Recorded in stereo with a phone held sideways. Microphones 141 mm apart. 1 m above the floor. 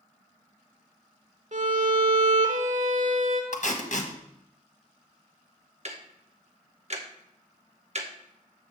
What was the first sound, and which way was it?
A violin, 60° right (ahead or behind).